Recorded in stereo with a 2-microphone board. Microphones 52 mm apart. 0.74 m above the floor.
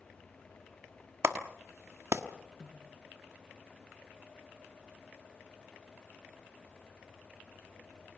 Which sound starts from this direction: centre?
A snare drum, at 2.6 s.